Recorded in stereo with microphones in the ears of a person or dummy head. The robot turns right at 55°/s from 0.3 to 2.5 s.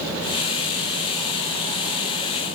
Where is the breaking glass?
I don't hear breaking glass.